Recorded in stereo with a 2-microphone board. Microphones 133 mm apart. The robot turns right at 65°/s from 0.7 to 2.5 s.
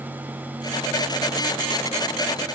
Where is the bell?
I don't hear a bell.